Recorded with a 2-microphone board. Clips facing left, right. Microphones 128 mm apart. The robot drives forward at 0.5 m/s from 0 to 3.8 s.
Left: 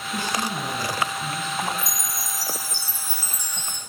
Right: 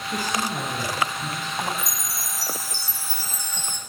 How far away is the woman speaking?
About 3.5 m.